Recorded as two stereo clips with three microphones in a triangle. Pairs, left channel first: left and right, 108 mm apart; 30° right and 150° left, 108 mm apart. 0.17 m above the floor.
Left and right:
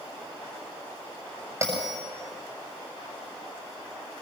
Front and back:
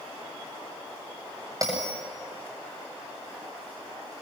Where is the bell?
155° right, 7.5 m.